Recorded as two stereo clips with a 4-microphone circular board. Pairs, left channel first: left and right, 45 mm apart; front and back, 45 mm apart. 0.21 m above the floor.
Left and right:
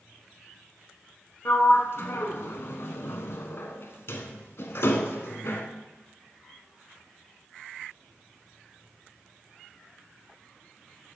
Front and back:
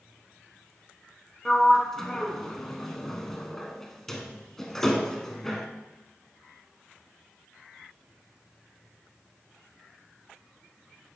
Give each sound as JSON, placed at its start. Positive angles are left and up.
{"t": 1.4, "sound": "a sliding door", "azimuth_deg": 80, "distance_m": 0.8}